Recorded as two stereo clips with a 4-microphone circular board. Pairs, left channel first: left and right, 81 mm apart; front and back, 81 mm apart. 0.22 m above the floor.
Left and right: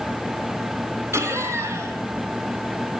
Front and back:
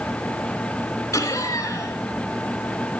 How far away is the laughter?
About 2.5 m.